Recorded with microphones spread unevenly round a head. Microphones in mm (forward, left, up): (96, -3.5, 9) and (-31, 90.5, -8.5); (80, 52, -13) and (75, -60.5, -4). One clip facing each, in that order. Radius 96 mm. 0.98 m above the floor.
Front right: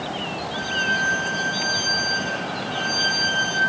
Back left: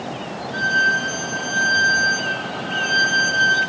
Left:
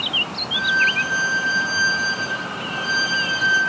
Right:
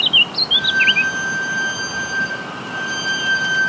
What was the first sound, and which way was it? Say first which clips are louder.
A violin: back left 2 dB, right 1 dB; 160° left.